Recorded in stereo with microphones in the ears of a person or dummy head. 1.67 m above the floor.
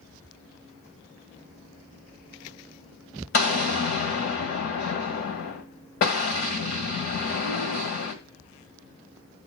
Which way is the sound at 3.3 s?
35° left (ahead or behind).